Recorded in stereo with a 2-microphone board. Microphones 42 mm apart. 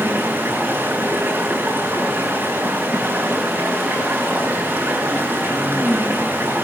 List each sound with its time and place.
0.0 s running water: 50° right (ahead or behind), 7.5 m